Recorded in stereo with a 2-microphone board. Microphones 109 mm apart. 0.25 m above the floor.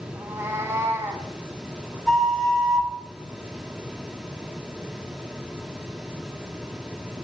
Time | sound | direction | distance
0.1 | a cat meowing | 25° right (ahead or behind) | 0.6 m
2.1 | a flute | 5° left (ahead or behind) | 0.6 m